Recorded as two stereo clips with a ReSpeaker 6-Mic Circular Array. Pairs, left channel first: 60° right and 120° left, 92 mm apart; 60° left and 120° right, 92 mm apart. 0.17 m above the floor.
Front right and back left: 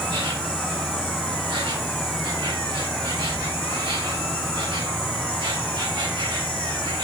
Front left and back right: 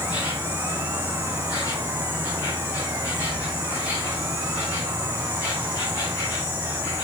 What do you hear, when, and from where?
0.0 s an insect: 115° left, 5 m